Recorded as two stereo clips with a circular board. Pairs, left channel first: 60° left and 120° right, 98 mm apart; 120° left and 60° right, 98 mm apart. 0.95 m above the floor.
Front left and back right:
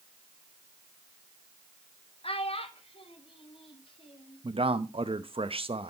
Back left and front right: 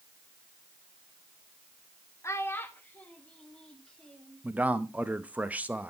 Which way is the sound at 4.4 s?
135° right.